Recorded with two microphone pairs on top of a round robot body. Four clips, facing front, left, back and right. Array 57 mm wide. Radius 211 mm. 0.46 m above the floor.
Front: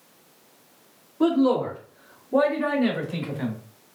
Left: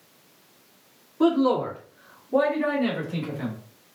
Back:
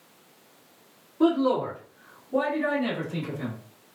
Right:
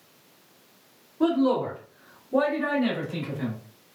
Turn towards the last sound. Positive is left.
turn(degrees=30)